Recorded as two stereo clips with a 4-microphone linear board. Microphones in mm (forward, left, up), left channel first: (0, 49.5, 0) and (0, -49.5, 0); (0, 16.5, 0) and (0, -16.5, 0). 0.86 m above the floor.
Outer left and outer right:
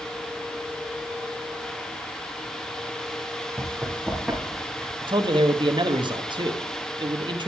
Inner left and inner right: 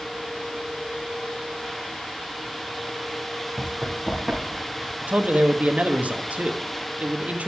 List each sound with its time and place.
3.6 s running footsteps: centre (ahead or behind), 5 m
5.0 s a man speaking: 50° right (ahead or behind), 1.2 m